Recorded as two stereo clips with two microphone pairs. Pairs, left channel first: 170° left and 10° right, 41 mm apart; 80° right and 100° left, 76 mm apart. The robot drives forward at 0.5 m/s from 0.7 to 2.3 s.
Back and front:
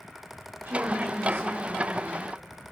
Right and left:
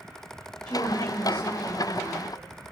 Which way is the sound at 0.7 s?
5° right.